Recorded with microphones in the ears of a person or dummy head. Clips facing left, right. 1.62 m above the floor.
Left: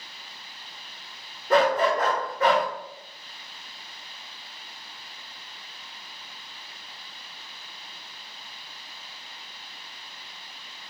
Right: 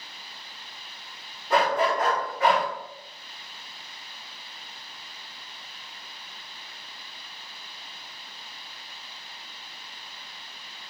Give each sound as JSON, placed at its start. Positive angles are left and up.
{"t": 1.5, "sound": "a dog barking", "side_deg": 40, "distance_m": 2.5}